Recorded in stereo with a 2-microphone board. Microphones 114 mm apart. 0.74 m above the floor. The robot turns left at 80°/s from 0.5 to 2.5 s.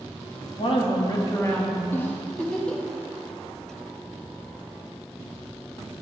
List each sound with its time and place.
0.6 s a woman speaking: 95° left, 0.9 m; by 1.8 s 5° right, 0.9 m
1.9 s a giggle: 20° left (ahead or behind), 0.6 m; by 2.8 s 5° left (ahead or behind), 0.6 m